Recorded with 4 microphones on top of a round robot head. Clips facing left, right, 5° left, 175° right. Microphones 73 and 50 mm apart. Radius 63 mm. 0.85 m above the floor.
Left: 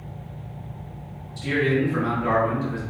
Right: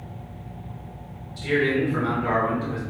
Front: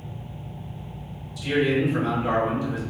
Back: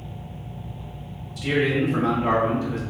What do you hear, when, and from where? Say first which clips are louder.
1.4 s a man speaking: even, even; 150° left, 1.8 m